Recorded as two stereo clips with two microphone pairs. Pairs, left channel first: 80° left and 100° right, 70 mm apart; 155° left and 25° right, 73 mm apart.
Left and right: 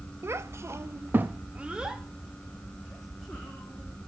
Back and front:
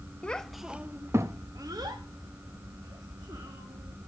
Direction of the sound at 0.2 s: 140° right.